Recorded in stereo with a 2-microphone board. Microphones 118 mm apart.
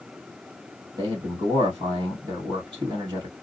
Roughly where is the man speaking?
Right.